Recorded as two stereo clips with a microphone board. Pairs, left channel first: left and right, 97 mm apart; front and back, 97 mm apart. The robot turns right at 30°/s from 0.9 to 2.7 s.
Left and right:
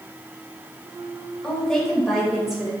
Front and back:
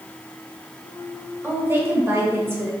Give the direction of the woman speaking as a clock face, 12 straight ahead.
7 o'clock.